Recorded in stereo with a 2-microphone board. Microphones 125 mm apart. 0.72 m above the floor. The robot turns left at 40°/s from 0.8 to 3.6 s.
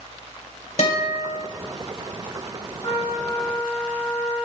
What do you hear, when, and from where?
0.8 s a guitar: 60° left (ahead or behind), 2.5 m; by 1.4 s 80° left, 2.5 m
2.8 s a trumpet: 135° left, 4.5 m; by 4.5 s 105° left, 4.5 m